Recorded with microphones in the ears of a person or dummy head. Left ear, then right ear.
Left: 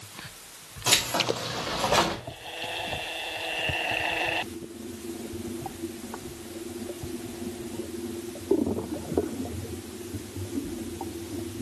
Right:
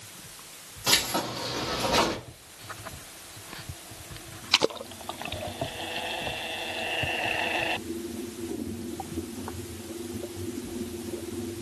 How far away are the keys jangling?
About 2.5 m.